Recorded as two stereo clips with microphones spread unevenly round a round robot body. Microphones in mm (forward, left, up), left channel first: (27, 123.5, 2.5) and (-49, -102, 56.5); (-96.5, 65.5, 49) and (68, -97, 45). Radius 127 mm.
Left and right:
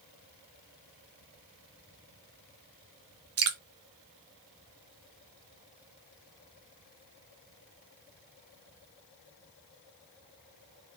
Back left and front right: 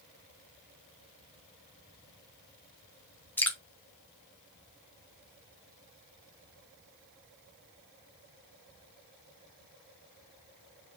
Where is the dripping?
140° right, 0.6 m.